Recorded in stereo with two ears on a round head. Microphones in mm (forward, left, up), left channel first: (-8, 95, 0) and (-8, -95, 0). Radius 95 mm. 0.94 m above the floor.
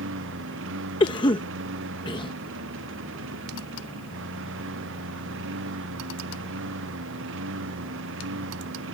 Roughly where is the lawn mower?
Right.